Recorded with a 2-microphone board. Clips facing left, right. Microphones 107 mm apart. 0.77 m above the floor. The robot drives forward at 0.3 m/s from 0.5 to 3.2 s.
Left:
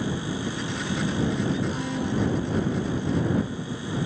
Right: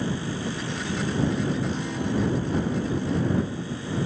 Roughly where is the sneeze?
I don't hear a sneeze.